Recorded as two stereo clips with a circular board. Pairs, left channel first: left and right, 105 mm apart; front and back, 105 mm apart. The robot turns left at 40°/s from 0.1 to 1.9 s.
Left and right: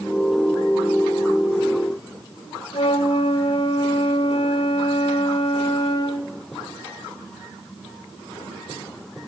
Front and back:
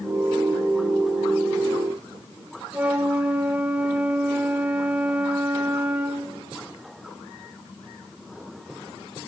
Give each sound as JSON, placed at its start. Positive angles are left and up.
{"t": 2.7, "sound": "a flute", "azimuth_deg": 105, "distance_m": 1.0}